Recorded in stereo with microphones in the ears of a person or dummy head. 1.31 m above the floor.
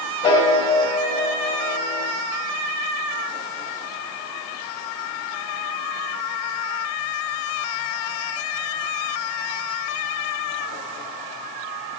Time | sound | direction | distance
0.2 | a piano | 25° left (ahead or behind) | 1.7 m